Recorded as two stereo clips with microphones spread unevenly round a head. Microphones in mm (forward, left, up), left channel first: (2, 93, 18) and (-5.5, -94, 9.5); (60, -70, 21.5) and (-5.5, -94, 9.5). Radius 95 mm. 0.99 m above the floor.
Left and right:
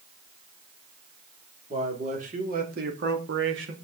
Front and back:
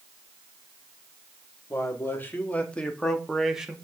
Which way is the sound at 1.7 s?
35° right.